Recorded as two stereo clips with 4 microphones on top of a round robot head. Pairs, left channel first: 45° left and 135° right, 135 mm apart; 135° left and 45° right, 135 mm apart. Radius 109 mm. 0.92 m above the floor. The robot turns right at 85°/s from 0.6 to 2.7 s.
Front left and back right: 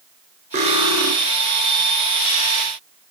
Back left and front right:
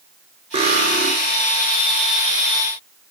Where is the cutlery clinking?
95° right, 2.5 m; by 1.1 s 50° right, 2.5 m.